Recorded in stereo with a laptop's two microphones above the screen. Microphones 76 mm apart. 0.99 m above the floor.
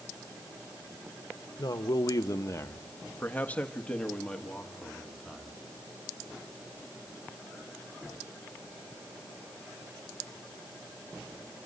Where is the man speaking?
60° left (ahead or behind), 1.2 m; by 5.6 s centre (ahead or behind), 3 m.